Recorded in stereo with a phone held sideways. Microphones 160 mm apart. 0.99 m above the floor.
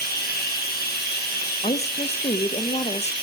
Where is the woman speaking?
45° left (ahead or behind), 0.6 m.